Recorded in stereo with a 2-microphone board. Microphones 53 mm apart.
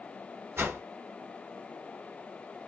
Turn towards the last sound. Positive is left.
turn(degrees=-45)  # may be behind; listen again after turning